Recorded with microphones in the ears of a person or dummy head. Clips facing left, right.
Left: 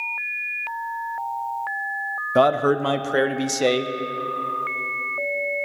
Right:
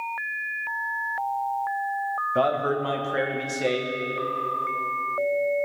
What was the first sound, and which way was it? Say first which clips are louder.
A man speaking: left 6 dB; 55° left (ahead or behind).